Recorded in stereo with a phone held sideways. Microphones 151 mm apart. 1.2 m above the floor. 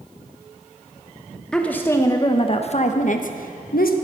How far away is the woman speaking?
About 0.9 m.